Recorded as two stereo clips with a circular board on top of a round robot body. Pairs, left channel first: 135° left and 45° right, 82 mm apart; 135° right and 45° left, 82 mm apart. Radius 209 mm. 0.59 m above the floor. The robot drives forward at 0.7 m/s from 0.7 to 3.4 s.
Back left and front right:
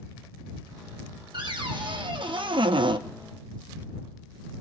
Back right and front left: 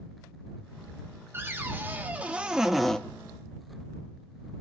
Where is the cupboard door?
20° right, 1.7 m; by 3.0 s 55° right, 0.8 m.